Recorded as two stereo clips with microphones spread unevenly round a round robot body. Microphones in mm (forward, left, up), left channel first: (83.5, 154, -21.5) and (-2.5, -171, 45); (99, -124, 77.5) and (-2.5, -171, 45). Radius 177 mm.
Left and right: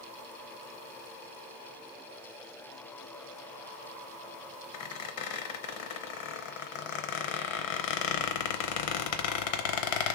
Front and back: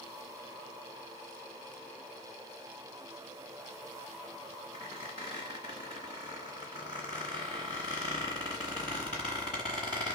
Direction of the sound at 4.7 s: 85° left.